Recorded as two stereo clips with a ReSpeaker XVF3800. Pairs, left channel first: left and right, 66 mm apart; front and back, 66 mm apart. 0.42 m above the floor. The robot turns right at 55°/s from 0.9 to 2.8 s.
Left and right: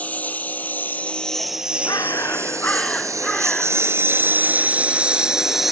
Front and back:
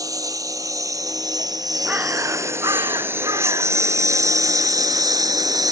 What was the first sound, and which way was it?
A lawn mower, 155° left.